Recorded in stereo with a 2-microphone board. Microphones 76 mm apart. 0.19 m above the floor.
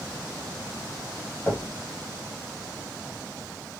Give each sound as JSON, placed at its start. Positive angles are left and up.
{"t": 1.5, "sound": "knocking", "side_deg": 25, "distance_m": 2.0}